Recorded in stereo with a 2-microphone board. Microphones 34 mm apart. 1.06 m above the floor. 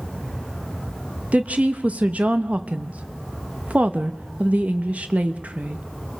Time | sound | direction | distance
1.3 | a woman speaking | 40° right (ahead or behind) | 0.8 m